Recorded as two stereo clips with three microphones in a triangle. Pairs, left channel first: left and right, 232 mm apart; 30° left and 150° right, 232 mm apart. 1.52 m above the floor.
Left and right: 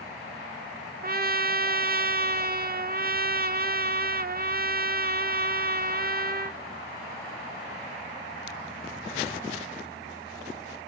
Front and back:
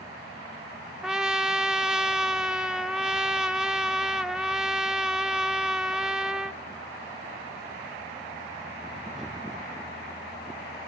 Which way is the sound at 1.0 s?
65° right.